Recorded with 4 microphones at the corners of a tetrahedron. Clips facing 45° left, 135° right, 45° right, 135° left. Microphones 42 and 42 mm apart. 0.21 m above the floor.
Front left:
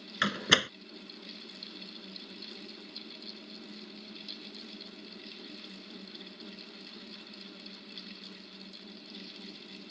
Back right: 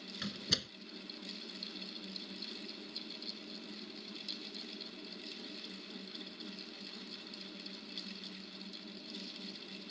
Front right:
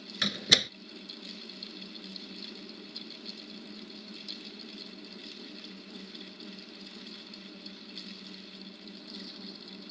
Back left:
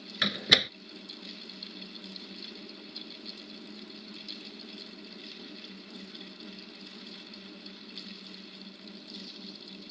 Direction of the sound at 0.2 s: 60° left.